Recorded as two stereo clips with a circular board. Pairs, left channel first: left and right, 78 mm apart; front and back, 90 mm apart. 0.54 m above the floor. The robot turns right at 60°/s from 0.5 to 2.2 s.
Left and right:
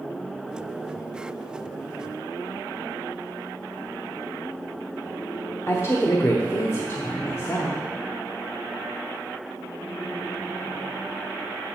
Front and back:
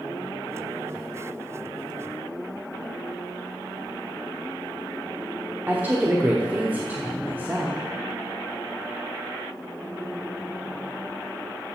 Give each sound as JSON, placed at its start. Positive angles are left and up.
{"t": 5.7, "sound": "a woman speaking", "azimuth_deg": 120, "distance_m": 1.0}